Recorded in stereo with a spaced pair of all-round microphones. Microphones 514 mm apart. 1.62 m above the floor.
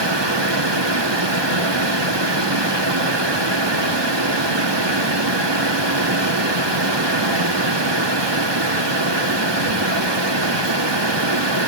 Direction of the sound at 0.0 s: 55° right (ahead or behind).